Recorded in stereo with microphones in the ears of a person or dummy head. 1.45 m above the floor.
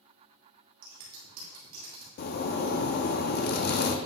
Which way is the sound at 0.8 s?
35° right (ahead or behind).